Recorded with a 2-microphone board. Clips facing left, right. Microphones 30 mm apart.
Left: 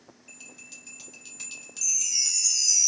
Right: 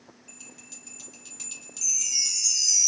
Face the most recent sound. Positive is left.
turn(degrees=-10)  # may be behind; listen again after turning